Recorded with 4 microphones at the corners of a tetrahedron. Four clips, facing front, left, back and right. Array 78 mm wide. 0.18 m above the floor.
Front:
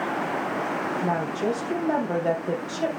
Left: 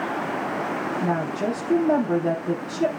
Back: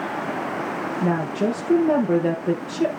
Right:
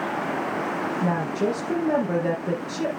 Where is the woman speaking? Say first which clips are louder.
Right 1 dB, back 6 dB; 165° right, 4 m.